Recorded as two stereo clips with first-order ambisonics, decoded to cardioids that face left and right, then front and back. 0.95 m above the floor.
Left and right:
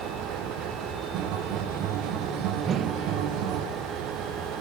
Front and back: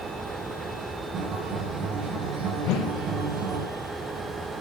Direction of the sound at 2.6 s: 30° right.